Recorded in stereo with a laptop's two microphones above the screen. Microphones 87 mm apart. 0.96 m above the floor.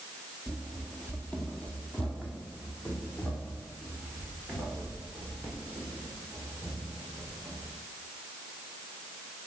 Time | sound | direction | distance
0.5 | running footsteps | 10° left (ahead or behind) | 1.0 m